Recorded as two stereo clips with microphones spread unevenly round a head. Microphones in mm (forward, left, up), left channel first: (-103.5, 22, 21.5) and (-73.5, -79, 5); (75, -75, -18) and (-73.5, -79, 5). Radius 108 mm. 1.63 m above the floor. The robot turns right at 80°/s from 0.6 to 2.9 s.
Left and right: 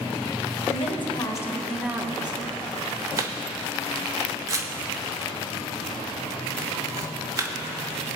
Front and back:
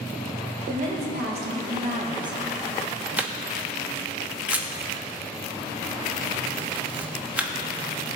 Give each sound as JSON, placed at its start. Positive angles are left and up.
{"t": 0.7, "sound": "a woman speaking", "azimuth_deg": 110, "distance_m": 2.0}
{"t": 3.2, "sound": "a camera shutter", "azimuth_deg": -120, "distance_m": 1.1}